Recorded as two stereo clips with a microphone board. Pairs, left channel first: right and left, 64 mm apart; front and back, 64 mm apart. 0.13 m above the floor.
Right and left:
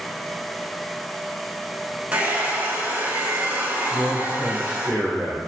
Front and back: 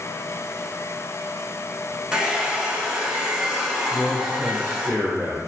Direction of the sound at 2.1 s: 120° left.